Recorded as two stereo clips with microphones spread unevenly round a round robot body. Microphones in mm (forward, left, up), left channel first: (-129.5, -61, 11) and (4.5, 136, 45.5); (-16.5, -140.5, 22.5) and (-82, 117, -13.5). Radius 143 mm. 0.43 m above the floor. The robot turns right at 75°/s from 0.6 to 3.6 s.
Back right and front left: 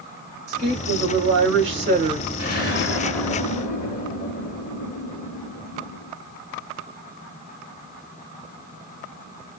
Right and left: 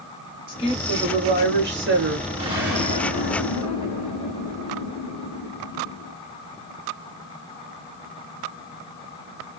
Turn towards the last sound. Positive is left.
turn(degrees=-100)